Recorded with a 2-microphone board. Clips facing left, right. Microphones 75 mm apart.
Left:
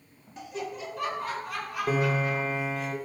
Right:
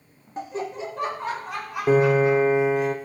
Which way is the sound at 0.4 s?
40° right (ahead or behind).